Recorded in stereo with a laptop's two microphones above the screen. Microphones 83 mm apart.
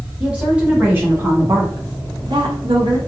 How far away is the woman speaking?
About 1.3 m.